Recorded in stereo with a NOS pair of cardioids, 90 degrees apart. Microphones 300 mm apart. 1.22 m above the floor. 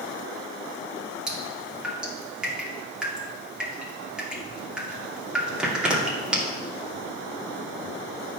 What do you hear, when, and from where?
1.3 s dripping: 5° right, 2.5 m